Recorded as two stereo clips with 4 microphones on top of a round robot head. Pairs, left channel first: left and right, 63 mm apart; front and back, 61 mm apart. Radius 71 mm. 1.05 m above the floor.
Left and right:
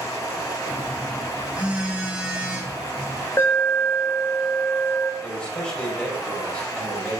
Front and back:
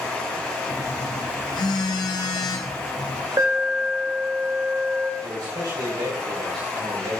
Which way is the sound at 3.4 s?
145° left.